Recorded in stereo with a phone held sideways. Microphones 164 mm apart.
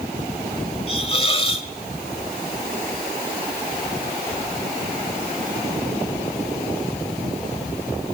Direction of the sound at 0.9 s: 35° left (ahead or behind).